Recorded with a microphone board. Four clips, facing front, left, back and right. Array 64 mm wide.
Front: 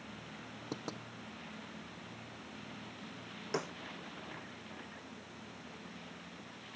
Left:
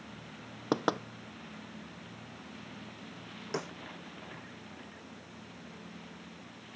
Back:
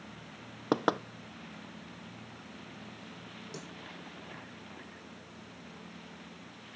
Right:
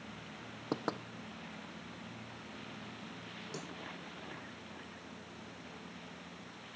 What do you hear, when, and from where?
0.7 s knocking: 155° left
3.5 s a snare drum: 40° left